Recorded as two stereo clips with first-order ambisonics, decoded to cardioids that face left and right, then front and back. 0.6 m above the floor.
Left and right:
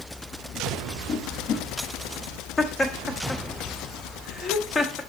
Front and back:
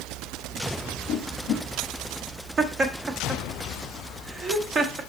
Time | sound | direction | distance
1.1 | a whoosh | 35° left | 3.5 m
2.6 | laughter | 145° left | 0.8 m